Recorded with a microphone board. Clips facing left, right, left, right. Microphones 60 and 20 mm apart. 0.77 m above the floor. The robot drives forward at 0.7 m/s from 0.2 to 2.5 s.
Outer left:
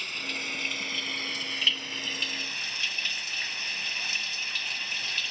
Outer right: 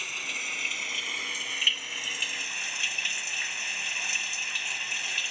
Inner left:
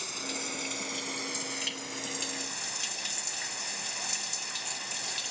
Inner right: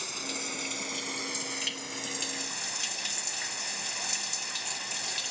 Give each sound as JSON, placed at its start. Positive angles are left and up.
{"t": 0.0, "sound": "running water", "side_deg": -5}